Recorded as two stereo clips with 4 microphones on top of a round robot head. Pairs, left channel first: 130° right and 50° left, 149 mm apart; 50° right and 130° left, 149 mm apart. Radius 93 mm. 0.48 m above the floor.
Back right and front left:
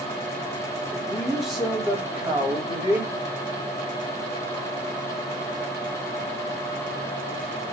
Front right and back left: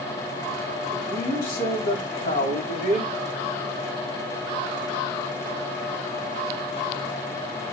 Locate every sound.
0.9 s a man speaking: 45° right, 4 m; by 3.1 s 25° right, 4.5 m